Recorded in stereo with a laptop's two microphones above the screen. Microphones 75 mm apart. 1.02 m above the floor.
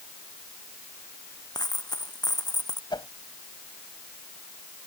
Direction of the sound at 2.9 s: 75° left (ahead or behind).